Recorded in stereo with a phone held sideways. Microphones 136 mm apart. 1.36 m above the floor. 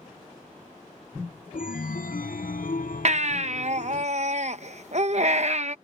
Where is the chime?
85° left.